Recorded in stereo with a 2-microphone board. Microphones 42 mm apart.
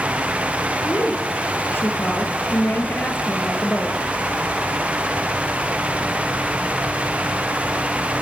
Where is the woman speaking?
55° left (ahead or behind), 4.5 m.